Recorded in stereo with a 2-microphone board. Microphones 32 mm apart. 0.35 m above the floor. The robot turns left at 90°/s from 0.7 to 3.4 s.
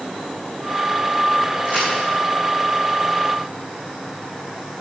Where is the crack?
50° right (ahead or behind), 5 m; by 1.9 s 70° right (ahead or behind), 5 m.